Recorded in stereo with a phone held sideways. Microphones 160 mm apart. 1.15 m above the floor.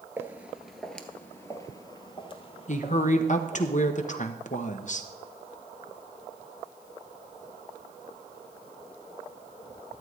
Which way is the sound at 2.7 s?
50° left (ahead or behind).